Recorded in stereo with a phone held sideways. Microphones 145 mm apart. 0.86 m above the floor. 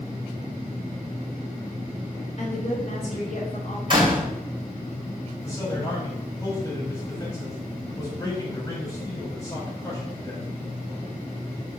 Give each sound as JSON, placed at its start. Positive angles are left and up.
{"t": 2.4, "sound": "a woman speaking", "side_deg": 50, "distance_m": 3.5}
{"t": 3.9, "sound": "a door slam", "side_deg": -35, "distance_m": 3.0}
{"t": 5.4, "sound": "a man speaking", "side_deg": 25, "distance_m": 4.0}